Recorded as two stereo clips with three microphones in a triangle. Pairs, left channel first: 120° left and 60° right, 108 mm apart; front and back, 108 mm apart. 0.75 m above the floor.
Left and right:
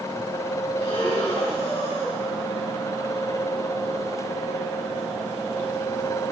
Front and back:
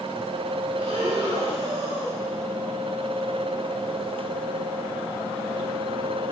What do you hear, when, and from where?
0.8 s breathing: 155° left, 3 m